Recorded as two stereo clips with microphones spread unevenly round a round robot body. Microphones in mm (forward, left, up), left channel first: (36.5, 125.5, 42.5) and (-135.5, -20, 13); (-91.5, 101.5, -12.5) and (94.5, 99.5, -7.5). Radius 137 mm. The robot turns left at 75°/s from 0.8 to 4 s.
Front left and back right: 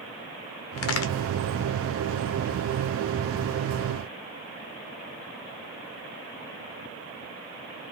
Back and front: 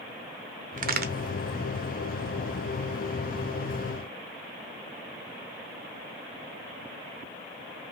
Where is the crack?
40° left, 0.6 m; by 1.1 s 15° left, 0.6 m.